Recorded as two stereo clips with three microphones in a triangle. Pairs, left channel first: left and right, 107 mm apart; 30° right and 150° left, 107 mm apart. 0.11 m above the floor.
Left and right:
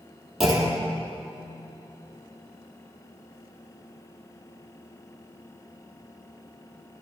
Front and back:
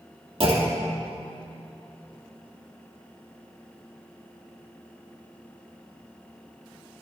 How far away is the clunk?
About 2 m.